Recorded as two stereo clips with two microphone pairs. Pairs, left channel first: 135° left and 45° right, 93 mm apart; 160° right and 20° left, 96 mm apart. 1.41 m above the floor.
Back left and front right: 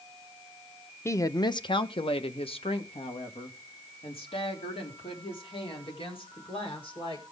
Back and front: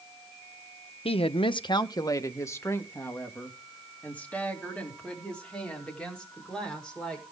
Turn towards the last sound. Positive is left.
turn(degrees=115)